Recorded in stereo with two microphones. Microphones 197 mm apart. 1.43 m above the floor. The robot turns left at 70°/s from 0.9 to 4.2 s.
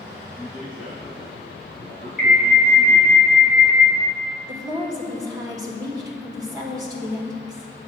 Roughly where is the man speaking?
Ahead right.